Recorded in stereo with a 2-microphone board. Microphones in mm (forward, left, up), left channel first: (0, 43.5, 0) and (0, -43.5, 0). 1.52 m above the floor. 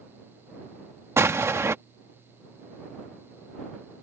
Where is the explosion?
30° right (ahead or behind).